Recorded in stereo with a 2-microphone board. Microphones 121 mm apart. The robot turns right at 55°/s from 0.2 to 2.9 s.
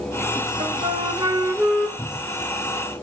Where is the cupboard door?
5° left (ahead or behind), 2.5 m; by 2.5 s 25° right (ahead or behind), 2.5 m.